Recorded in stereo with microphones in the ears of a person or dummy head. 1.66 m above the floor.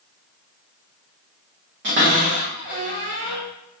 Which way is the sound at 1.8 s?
40° right (ahead or behind).